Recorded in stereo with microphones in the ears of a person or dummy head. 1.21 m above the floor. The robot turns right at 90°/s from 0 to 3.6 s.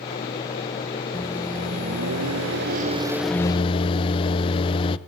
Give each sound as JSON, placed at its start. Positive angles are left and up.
{"t": 1.1, "sound": "a microwave", "azimuth_deg": 170, "distance_m": 0.8}